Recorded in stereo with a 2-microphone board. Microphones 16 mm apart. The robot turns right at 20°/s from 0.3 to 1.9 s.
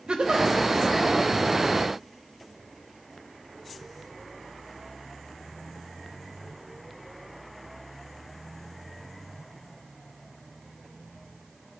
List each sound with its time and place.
0.1 s a giggle: 65° right (ahead or behind), 1.0 m; by 0.5 s 60° right (ahead or behind), 1.0 m